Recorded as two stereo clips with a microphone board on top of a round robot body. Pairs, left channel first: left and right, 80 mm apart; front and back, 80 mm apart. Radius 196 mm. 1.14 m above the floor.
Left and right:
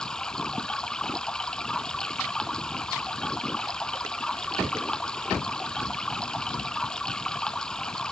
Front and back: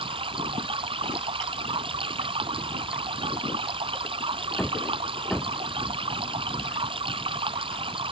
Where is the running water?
170° left.